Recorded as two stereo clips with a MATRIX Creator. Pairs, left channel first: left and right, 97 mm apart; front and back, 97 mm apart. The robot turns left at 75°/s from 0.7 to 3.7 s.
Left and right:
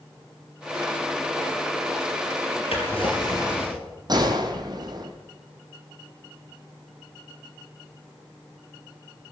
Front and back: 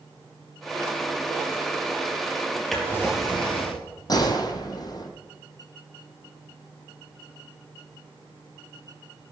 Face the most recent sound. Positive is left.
turn(degrees=-45)